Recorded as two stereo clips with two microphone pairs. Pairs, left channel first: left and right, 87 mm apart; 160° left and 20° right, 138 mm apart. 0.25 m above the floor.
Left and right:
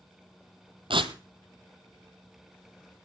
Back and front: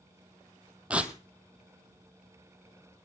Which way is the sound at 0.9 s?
100° right.